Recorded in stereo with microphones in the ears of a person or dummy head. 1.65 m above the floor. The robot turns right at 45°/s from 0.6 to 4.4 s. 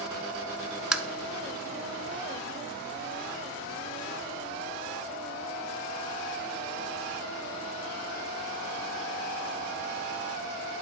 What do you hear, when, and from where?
0.9 s tapping: 5° right (ahead or behind), 0.7 m; by 1.0 s 5° left (ahead or behind), 0.7 m